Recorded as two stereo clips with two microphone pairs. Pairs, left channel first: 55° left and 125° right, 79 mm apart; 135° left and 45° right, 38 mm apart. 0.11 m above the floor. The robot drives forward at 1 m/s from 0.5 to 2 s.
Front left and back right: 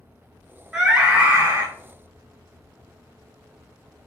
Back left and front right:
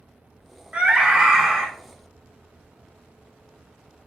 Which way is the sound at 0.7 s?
45° right.